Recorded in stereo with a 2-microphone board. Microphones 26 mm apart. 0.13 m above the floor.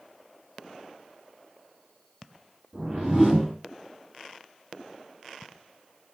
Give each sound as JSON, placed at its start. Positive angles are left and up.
{"t": 2.7, "sound": "a whoosh", "side_deg": -35, "distance_m": 2.0}